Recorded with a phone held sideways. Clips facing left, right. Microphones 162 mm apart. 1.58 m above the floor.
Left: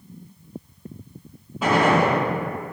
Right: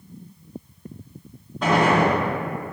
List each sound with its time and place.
1.6 s a gunshot: 5° left (ahead or behind), 0.8 m